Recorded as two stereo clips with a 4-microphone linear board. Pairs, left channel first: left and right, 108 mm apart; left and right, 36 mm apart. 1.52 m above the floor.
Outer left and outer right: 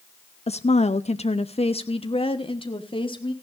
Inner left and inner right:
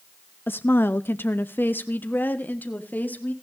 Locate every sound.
0.5 s a woman speaking: 70° left (ahead or behind), 0.5 m; by 3.3 s 50° left (ahead or behind), 2.0 m